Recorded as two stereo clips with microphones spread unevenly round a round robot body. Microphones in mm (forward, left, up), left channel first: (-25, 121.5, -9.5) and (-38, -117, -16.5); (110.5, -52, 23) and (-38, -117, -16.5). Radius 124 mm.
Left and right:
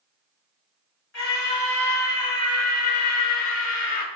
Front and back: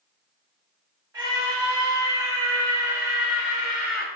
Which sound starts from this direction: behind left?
A scream, at 1.1 s.